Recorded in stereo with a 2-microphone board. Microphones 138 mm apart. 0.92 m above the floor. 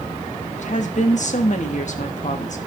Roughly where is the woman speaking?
Left.